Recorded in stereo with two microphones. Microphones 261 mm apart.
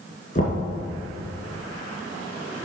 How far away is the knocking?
About 2 m.